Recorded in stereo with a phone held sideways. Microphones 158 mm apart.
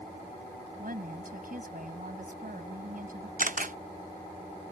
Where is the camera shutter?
55° right (ahead or behind).